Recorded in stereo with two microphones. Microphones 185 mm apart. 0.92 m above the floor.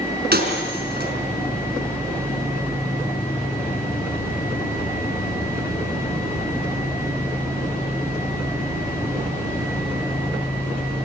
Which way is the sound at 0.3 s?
60° right (ahead or behind).